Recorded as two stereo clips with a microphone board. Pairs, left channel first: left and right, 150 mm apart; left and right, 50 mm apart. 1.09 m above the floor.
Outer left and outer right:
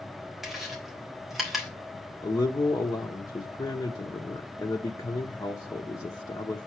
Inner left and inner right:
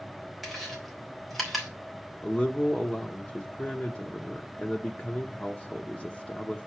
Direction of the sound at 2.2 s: 25° left (ahead or behind).